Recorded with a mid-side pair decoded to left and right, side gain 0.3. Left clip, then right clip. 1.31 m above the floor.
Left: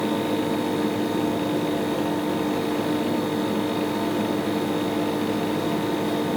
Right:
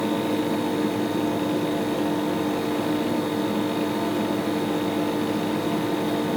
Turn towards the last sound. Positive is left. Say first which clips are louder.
# even
turn(degrees=10)